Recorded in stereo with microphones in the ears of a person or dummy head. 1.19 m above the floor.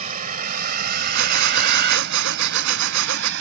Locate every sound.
0.0 s a vehicle: 40° right (ahead or behind); by 3.4 s 65° right (ahead or behind)
1.1 s breathing: 75° right (ahead or behind)